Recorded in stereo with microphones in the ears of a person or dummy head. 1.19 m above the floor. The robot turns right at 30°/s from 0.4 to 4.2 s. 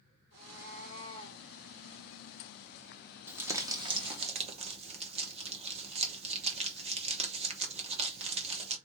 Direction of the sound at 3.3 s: 10° right (ahead or behind).